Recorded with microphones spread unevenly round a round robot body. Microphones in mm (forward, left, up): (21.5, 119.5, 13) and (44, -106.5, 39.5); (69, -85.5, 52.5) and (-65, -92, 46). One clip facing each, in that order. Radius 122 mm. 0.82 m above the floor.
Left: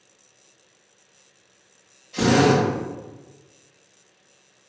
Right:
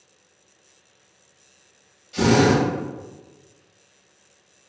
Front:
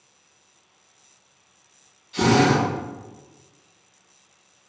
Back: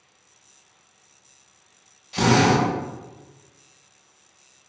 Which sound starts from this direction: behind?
A drill, at 2.1 s.